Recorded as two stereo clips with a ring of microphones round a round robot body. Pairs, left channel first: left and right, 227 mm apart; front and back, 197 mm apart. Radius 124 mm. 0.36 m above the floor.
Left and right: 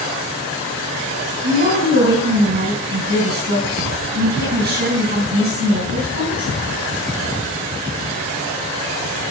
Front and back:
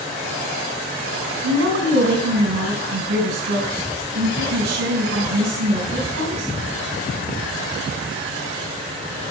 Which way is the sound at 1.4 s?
135° right.